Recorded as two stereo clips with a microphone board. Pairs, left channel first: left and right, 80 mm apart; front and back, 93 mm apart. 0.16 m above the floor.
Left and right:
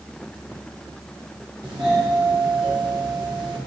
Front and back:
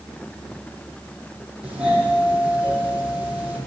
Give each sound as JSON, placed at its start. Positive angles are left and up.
{"t": 1.6, "sound": "a doorbell", "azimuth_deg": -105, "distance_m": 6.0}